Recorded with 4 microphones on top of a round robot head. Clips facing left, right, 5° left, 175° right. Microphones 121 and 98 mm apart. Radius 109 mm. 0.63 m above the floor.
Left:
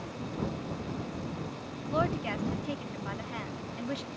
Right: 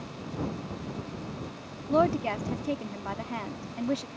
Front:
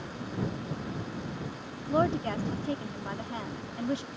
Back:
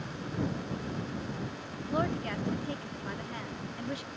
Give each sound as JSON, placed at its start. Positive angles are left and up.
{"t": 1.9, "sound": "a woman speaking", "azimuth_deg": -50}